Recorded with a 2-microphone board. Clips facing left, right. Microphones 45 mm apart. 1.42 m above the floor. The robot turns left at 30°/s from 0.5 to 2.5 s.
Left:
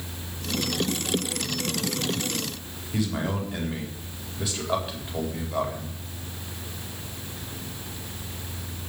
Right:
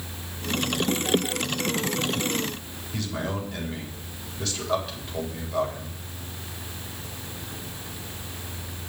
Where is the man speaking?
10° left (ahead or behind), 4 m.